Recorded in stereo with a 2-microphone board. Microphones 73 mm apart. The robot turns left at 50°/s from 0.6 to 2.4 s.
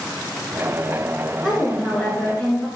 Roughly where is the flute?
I don't hear a flute.